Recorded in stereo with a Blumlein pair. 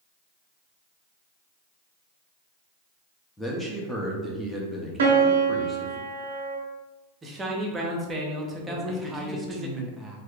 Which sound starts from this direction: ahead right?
A piano, at 5.0 s.